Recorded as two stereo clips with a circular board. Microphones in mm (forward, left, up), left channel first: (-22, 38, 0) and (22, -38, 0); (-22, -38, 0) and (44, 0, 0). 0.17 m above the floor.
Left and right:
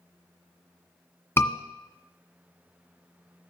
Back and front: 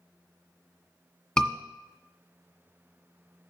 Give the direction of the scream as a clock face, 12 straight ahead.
7 o'clock.